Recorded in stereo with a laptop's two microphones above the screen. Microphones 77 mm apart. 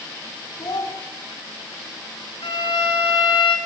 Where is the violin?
65° left (ahead or behind), 4 m.